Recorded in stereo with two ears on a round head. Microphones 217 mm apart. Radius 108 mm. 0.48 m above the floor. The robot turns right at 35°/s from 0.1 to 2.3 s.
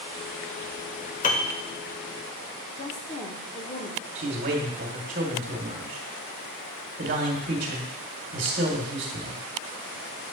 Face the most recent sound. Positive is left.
turn(degrees=-40)  # may be behind; listen again after turning